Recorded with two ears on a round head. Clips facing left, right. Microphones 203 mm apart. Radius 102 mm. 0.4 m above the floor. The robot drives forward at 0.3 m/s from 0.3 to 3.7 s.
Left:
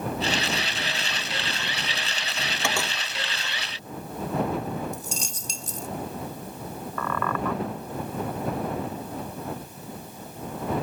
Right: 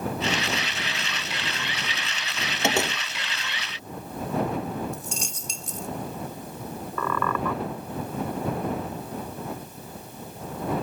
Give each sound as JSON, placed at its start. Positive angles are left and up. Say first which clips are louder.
{"t": 2.6, "sound": "a door slam", "louder": "right 6 dB", "side_deg": -20}
{"t": 4.9, "sound": "a dropped coin", "louder": "even", "side_deg": 35}
{"t": 7.0, "sound": "a squeak", "louder": "right 1 dB", "side_deg": -90}